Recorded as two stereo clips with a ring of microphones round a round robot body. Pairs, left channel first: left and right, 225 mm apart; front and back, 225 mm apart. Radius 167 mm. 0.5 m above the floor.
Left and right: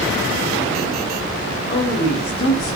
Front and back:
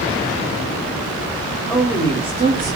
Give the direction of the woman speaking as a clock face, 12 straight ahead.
9 o'clock.